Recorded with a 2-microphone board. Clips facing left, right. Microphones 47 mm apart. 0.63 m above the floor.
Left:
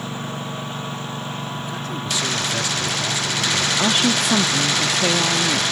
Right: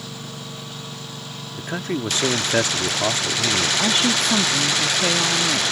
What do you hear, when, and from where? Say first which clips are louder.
0.0 s a lawn mower: left 6 dB; 35° left (ahead or behind)
1.6 s a man speaking: right 2 dB; 50° right (ahead or behind)
3.8 s a woman speaking: left 3 dB; 5° left (ahead or behind)